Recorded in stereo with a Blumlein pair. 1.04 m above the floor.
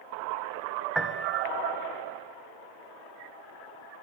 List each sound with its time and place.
0.9 s a piano: 5° right, 0.9 m